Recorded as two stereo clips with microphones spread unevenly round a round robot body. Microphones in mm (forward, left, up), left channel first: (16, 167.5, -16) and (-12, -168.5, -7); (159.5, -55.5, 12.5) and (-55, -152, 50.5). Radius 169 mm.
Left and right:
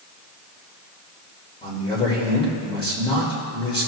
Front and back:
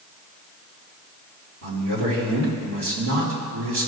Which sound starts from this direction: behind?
A man speaking, at 1.6 s.